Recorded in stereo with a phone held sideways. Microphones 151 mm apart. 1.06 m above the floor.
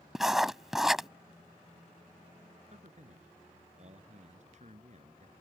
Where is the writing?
5° right (ahead or behind).